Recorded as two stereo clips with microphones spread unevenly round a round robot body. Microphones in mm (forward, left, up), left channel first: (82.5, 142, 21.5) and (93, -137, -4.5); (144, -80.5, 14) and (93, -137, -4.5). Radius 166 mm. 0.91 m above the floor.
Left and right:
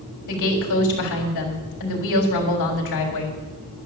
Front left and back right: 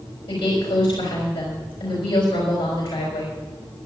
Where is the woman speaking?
75° left, 4 m.